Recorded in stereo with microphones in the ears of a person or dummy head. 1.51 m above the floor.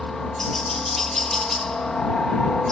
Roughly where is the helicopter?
Centre.